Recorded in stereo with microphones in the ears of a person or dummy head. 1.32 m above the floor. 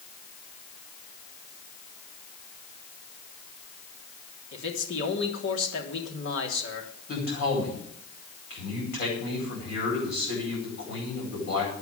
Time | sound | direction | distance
4.5 | a man speaking | 70° left (ahead or behind) | 3 m
7.1 | a man speaking | 50° left (ahead or behind) | 9.5 m